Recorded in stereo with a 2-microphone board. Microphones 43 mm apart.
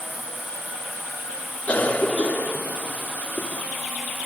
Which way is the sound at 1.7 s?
30° left (ahead or behind).